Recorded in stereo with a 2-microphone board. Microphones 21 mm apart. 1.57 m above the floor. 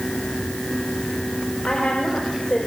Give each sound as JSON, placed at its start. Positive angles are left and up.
{"t": 1.7, "sound": "a woman speaking", "side_deg": 75, "distance_m": 5.5}